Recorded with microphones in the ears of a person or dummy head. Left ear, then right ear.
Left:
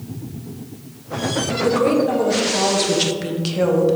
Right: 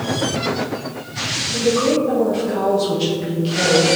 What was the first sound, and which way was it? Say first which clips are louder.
A woman speaking: even; 50° left (ahead or behind).